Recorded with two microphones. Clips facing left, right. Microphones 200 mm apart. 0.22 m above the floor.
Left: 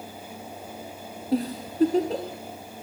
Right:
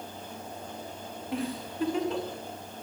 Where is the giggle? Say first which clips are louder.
Left 7 dB; 35° left (ahead or behind), 4 m.